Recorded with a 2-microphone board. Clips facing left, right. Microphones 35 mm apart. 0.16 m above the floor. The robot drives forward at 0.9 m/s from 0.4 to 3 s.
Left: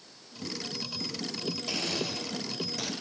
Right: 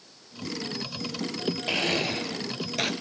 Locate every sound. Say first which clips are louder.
1.7 s a blender: right 8 dB; 40° right (ahead or behind), 1.2 m; by 2.9 s 60° right (ahead or behind), 0.9 m